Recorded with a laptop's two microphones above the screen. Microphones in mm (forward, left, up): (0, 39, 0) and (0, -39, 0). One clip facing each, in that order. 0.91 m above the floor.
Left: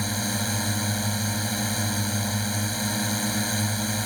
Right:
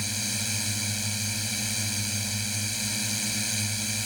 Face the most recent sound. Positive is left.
turn(degrees=45)  # may be behind; listen again after turning